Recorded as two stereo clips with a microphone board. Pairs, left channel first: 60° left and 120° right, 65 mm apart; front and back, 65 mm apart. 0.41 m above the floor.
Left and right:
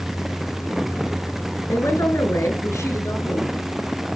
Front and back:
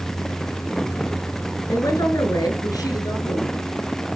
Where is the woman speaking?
20° left, 5 m; by 3.6 s 15° left, 7 m.